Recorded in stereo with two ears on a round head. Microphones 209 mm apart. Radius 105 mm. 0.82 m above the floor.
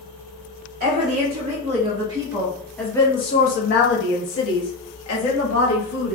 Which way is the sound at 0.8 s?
35° right (ahead or behind).